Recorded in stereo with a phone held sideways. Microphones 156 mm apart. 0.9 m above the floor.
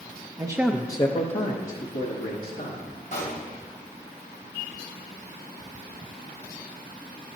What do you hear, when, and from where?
0.4 s a man speaking: 30° right (ahead or behind), 0.6 m; by 2.8 s 70° left (ahead or behind), 2 m
3.1 s a pop: 50° left (ahead or behind), 2 m